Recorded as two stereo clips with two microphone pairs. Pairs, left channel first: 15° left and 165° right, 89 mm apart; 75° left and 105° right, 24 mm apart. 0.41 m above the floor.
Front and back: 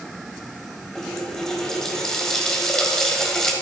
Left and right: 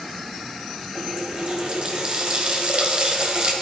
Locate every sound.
0.9 s a running tap: 70° right, 1.5 m